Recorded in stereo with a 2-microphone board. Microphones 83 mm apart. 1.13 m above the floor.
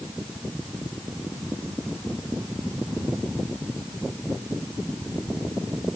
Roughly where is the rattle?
I don't hear a rattle.